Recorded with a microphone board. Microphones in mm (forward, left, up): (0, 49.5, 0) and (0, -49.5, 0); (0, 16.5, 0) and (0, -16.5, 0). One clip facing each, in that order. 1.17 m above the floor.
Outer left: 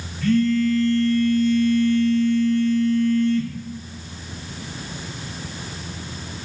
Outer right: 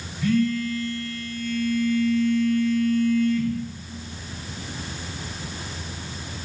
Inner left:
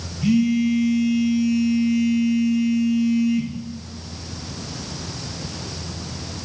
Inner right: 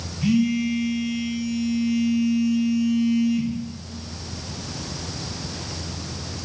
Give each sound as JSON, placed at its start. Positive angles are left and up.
{"t": 0.2, "sound": "a phone buzzing", "side_deg": -10, "distance_m": 2.0}